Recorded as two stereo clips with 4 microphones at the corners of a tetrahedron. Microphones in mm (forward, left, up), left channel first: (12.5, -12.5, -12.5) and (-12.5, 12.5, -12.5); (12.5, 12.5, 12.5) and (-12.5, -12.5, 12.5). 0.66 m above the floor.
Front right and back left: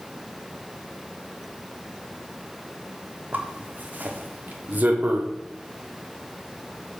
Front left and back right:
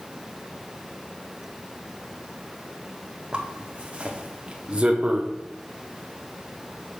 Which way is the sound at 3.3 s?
165° left.